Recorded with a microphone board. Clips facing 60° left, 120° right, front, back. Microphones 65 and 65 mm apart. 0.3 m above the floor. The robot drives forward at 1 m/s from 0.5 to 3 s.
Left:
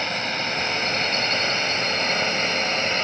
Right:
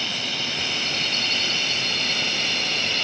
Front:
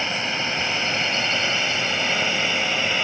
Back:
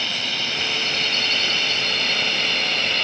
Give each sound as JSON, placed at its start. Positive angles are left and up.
{"t": 0.0, "sound": "a drone", "azimuth_deg": 50}